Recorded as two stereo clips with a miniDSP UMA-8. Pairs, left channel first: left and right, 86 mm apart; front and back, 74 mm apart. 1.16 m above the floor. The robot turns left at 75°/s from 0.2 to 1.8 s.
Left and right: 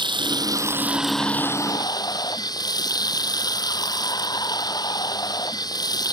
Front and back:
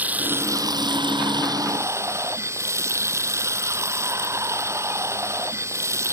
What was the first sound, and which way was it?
Running water, 110° right.